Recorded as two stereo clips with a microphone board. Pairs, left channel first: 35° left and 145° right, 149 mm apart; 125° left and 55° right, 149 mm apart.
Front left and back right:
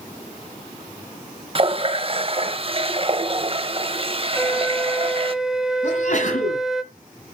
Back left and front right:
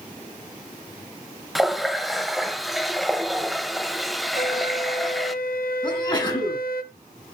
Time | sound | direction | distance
1.6 | a running tap | 145° right | 0.7 m
4.3 | a flute | 125° left | 0.7 m
5.8 | a sneeze | 65° left | 3 m